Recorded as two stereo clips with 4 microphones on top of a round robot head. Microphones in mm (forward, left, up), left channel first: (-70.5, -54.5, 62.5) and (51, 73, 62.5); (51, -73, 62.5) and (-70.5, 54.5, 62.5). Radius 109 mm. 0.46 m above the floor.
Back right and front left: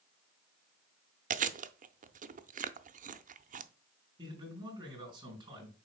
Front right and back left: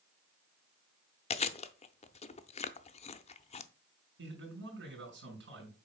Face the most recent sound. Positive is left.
turn(degrees=110)